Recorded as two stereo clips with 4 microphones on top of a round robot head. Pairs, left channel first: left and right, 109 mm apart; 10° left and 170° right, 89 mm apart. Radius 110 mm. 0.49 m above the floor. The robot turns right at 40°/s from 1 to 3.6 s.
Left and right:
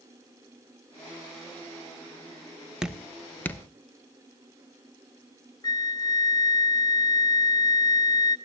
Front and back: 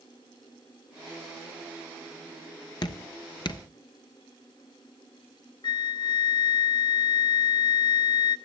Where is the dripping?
10° right, 1.1 m; by 3.6 s 25° left, 1.1 m.